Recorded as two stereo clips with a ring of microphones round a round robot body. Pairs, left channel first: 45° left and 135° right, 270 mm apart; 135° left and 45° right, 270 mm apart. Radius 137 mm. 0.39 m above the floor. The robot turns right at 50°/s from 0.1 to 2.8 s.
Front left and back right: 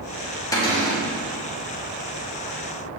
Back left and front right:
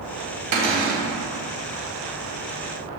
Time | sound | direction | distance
0.5 | a cupboard door | 30° right | 2 m